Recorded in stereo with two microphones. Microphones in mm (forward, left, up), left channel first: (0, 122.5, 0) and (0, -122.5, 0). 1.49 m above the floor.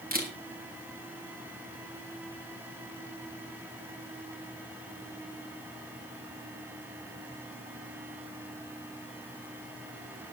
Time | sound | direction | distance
0.1 | a camera shutter | 35° right (ahead or behind) | 3.5 m